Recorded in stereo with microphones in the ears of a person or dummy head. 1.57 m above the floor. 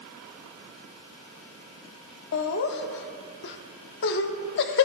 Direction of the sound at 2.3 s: 60° left (ahead or behind).